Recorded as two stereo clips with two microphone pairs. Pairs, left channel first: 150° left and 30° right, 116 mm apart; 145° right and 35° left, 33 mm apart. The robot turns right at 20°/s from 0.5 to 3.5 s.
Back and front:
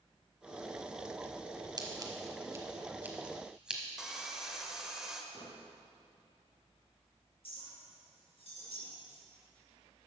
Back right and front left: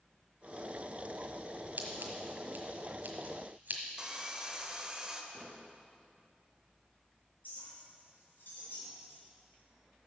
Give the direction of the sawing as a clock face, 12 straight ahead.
10 o'clock.